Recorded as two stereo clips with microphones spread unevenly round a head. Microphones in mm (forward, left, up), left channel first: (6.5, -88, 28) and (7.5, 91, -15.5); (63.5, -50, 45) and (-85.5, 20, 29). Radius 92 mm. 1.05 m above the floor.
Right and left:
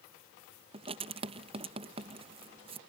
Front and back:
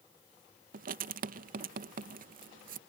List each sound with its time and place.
0.7 s writing: 135° left